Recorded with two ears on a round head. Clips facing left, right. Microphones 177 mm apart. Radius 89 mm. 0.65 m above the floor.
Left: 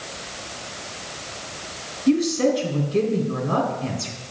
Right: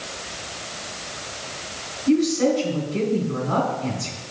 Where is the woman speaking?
45° left (ahead or behind), 3 m.